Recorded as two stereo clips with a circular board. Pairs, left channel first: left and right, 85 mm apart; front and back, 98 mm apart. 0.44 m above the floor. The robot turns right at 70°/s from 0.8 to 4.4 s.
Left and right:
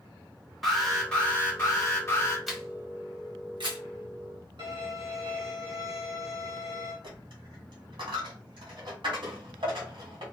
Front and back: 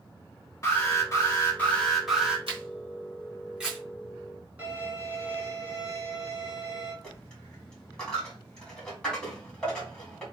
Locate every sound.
0.6 s an alarm: straight ahead, 1.5 m; by 2.4 s 110° left, 1.5 m
2.5 s a camera shutter: straight behind, 1.3 m; by 3.8 s 90° right, 1.3 m
4.6 s a violin: 110° right, 2.5 m
7.0 s a dropped coin: 80° right, 1.7 m